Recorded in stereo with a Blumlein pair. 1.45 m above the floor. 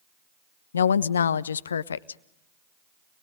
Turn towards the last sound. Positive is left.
turn(degrees=70)